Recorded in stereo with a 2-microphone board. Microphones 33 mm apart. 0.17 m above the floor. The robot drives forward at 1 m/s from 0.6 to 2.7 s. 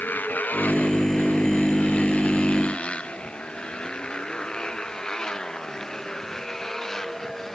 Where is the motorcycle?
60° left (ahead or behind); by 7.6 s 5° left (ahead or behind).